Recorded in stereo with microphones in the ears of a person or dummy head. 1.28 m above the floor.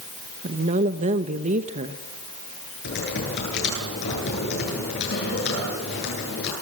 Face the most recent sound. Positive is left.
turn(degrees=60)  # may be behind; listen again after turning